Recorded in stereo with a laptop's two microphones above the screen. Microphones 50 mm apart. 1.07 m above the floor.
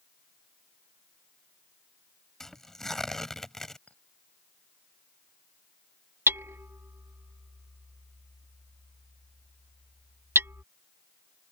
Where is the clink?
25° left (ahead or behind).